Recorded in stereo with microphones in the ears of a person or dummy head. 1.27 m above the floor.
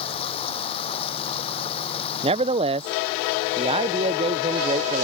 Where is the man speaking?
30° right (ahead or behind).